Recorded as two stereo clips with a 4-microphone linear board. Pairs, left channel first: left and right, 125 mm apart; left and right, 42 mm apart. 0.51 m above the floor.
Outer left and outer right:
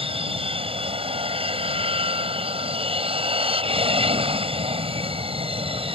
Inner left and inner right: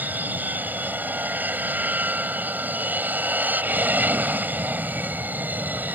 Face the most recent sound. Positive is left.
turn(degrees=-50)  # may be behind; listen again after turning